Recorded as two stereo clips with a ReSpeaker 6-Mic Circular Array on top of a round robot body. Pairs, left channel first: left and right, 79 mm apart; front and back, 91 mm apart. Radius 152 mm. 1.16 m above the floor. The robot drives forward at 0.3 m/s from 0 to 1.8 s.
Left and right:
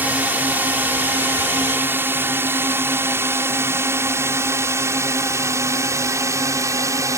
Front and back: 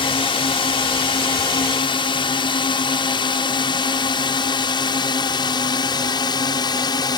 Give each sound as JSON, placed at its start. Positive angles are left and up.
{"t": 0.0, "sound": "a drone", "azimuth_deg": -20}